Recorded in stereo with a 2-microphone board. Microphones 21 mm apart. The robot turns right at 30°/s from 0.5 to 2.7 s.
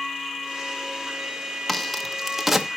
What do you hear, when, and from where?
1.7 s a crack: 15° left (ahead or behind), 0.9 m; by 2.7 s 15° right (ahead or behind), 0.9 m